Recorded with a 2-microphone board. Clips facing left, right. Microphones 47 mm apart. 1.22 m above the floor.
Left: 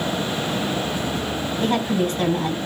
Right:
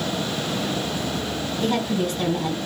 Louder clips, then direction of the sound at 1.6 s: Left 2 dB; 35° left (ahead or behind).